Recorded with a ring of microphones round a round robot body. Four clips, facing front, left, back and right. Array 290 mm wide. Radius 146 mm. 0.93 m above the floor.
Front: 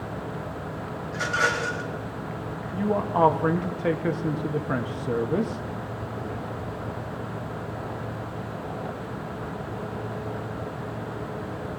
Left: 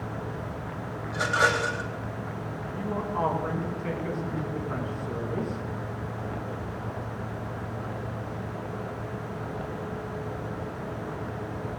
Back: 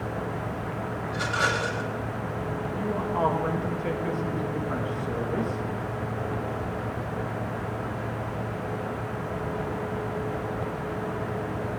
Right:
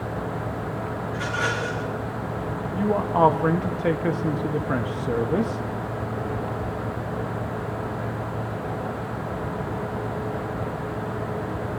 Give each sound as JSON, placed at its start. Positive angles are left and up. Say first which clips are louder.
{"t": 1.1, "sound": "a rattle", "louder": "left 4 dB, front 2 dB", "azimuth_deg": 80, "distance_m": 2.0}
{"t": 2.7, "sound": "a man speaking", "louder": "right 9 dB, front 6 dB", "azimuth_deg": -60, "distance_m": 1.3}